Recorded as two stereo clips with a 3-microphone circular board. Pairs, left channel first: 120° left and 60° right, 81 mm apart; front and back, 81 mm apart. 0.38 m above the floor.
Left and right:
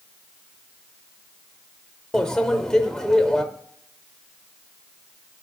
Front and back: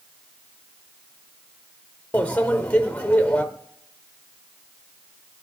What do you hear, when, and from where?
2.1 s a microwave: 50° left, 0.6 m